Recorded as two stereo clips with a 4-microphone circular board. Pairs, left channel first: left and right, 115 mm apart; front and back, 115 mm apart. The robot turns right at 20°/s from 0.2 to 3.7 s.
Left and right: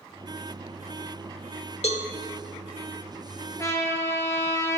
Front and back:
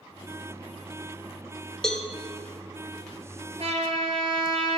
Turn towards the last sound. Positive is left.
turn(degrees=155)